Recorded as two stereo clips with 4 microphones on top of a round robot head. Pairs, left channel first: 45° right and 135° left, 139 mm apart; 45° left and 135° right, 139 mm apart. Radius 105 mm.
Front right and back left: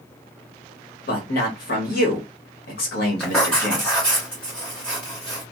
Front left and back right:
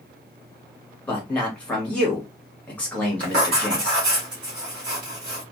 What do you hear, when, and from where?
1.1 s a man speaking: 35° right, 1.3 m
3.2 s writing: 125° right, 1.3 m